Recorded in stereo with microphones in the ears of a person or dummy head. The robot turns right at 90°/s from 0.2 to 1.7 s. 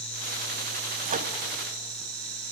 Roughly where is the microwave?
Right.